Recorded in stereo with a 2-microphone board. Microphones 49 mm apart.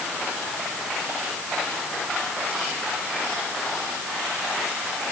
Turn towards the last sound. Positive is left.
No sound to turn to.